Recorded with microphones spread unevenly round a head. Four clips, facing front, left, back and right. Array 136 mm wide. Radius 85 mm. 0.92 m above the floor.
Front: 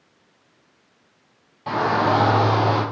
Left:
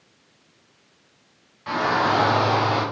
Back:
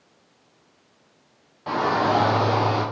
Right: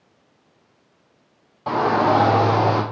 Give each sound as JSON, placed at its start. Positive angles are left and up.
{"t": 1.7, "sound": "a shout", "azimuth_deg": -95, "distance_m": 2.5}